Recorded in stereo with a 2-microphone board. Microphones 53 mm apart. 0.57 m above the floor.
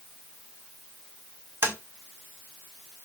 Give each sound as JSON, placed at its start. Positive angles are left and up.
{"t": 1.6, "sound": "tapping", "side_deg": -50, "distance_m": 2.0}